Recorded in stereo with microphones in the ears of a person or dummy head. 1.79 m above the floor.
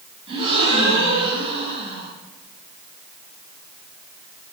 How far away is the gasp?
About 4.5 m.